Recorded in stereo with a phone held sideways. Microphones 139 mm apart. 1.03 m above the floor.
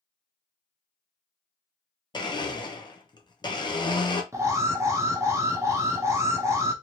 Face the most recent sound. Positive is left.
turn(degrees=-20)  # may be behind; listen again after turning